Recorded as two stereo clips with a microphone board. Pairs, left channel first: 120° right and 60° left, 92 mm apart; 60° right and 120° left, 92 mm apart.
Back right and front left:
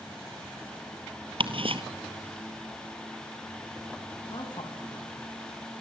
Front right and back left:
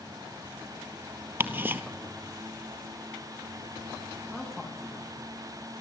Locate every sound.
1.4 s ticking: 55° left, 1.7 m
4.3 s a man speaking: 150° right, 9.5 m